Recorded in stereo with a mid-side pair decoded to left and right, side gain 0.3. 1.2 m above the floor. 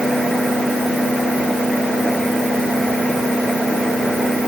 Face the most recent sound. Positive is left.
No sound to turn to.